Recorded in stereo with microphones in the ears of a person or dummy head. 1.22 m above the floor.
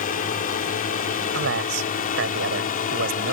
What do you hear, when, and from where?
0.0 s a drone: 45° left (ahead or behind)
1.3 s a man speaking: 60° right (ahead or behind)